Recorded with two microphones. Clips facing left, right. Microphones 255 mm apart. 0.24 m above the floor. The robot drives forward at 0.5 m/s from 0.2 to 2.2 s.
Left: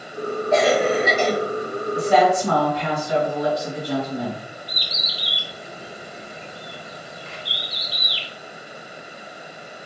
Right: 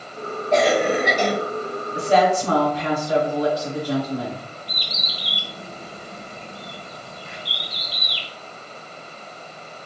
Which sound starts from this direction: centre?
A cough, at 0.5 s.